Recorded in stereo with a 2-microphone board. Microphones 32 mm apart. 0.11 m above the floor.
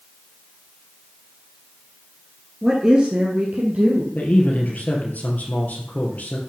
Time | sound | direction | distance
2.6 | a woman speaking | 10° right (ahead or behind) | 2.0 m
4.2 | a man speaking | 55° left (ahead or behind) | 2.5 m